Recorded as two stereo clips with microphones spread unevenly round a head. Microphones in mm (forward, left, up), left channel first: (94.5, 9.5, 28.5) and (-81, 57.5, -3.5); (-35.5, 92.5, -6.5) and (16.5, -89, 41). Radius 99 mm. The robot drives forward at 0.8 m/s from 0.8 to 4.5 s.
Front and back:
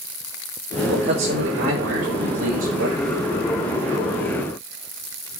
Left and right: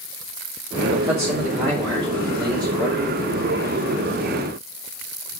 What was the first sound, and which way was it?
A man speaking, 140° right.